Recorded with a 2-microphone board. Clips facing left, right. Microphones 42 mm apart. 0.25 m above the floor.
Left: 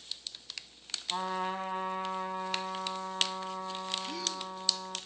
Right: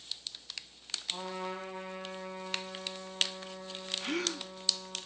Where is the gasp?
60° right (ahead or behind), 0.8 m.